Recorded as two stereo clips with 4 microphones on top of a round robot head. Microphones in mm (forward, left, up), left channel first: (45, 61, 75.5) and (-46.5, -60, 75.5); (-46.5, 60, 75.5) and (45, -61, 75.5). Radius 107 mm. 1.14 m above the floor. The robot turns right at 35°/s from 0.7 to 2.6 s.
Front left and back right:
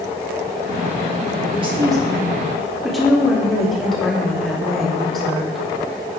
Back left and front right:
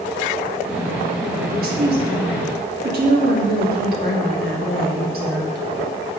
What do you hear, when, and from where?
1.5 s a woman speaking: 75° right, 3 m; by 5.6 s 35° right, 3 m